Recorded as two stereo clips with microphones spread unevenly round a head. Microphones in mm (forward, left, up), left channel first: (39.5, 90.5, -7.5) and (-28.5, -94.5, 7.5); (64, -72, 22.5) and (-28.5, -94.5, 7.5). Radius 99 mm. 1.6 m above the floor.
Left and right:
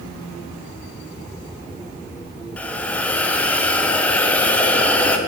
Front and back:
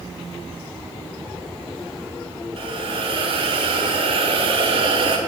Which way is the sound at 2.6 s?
155° left.